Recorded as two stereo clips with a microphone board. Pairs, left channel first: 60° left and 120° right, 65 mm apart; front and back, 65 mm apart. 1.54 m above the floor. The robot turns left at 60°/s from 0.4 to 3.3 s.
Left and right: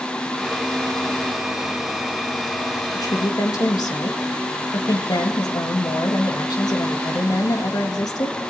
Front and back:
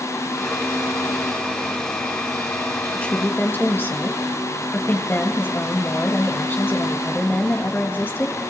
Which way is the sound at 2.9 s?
80° left.